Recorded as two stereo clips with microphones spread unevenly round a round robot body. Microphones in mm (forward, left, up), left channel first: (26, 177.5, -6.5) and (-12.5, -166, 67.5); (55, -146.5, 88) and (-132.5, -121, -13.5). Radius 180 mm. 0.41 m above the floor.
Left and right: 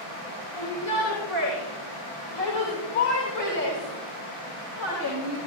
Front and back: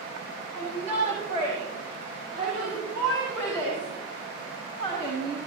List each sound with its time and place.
0.5 s a shout: 95° left, 6 m; by 5.4 s 90° left, 9.5 m